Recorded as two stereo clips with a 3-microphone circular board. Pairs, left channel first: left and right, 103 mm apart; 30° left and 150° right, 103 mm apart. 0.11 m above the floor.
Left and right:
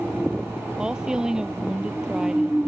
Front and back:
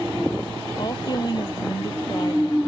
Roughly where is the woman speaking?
Ahead.